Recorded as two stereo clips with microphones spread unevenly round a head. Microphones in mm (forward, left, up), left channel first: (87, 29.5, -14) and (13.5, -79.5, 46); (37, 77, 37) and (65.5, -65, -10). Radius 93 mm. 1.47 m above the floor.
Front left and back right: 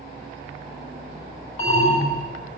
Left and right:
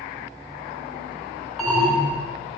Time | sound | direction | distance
1.6 | an alarm | 15° left | 4.5 m